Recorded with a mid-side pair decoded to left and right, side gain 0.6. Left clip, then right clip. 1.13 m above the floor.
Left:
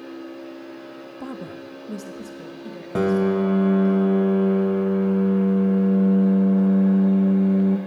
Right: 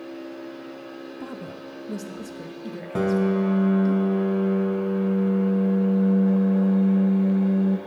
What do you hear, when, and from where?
1.2 s a woman speaking: 15° left, 0.8 m; by 4.0 s 30° right, 2 m
3.0 s a piano: 15° left, 0.6 m